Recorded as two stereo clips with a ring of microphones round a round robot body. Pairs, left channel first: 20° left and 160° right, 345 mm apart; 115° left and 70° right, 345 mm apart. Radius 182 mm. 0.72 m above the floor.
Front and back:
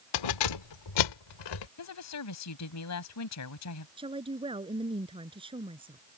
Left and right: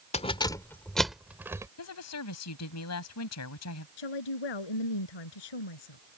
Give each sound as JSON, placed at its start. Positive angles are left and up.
{"t": 0.1, "sound": "keys jangling", "azimuth_deg": 40}
{"t": 1.8, "sound": "a woman speaking", "azimuth_deg": 65}
{"t": 4.0, "sound": "a woman speaking", "azimuth_deg": 125}